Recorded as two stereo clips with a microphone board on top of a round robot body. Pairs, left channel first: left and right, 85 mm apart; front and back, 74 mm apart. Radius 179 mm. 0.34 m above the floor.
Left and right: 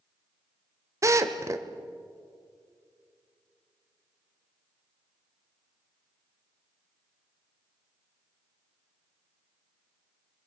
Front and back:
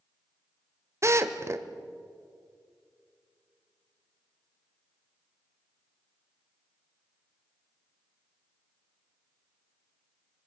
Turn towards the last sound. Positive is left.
turn(degrees=-135)